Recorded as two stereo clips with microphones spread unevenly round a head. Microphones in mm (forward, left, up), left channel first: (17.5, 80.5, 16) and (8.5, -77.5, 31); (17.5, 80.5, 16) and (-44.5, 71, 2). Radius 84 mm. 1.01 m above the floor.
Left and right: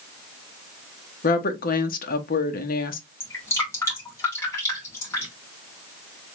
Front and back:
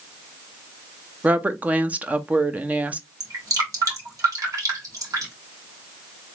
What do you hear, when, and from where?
1.2 s a woman speaking: 125° left, 0.9 m
3.2 s dripping: 165° left, 2.5 m